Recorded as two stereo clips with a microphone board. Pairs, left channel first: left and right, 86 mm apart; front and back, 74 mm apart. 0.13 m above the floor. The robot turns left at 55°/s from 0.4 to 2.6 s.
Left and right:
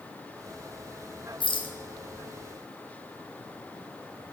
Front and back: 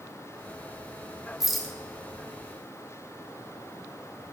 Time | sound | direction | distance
1.4 | a rattle | 95° left | 0.9 m